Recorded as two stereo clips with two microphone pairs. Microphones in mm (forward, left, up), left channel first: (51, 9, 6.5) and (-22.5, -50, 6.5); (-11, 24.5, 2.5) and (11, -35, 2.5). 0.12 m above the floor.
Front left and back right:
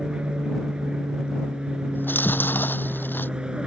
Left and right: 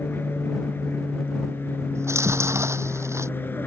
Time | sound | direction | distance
0.0 | an aircraft | 145° left | ?
1.9 | chewing | 30° right | ?